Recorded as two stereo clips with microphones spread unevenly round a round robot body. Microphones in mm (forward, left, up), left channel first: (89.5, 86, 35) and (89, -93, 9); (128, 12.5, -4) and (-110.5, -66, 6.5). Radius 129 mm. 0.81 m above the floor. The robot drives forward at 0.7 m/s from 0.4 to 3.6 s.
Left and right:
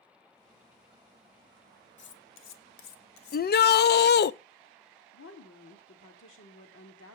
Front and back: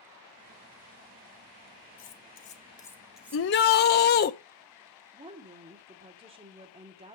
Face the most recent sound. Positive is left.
turn(degrees=130)